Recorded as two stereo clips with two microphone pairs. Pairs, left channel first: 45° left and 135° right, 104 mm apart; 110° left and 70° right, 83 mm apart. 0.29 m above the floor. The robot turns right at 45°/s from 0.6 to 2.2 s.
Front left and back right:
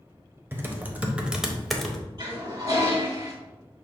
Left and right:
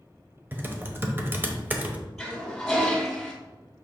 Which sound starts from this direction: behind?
A toilet flushing, at 2.2 s.